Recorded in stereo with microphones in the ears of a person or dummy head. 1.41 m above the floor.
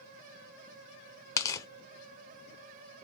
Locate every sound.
1.4 s tearing paper: 10° left (ahead or behind), 0.5 m